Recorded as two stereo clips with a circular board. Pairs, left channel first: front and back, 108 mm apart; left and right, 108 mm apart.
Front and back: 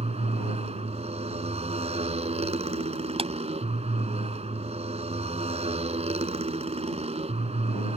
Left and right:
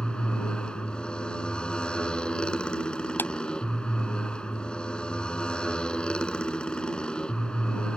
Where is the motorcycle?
170° left.